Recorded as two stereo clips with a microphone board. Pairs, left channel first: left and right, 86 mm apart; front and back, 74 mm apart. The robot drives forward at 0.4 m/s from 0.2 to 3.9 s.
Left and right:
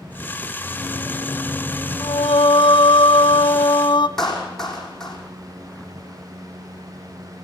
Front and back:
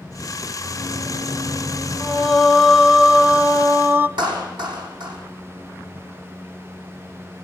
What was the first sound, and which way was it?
A microwave, 165° right.